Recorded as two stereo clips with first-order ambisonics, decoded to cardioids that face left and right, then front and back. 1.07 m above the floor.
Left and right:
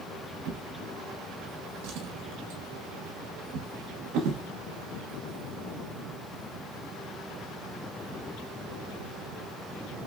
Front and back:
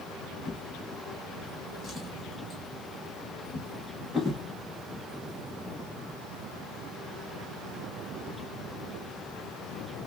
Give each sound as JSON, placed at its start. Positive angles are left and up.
{"t": 0.5, "sound": "a drawer", "azimuth_deg": -80, "distance_m": 0.9}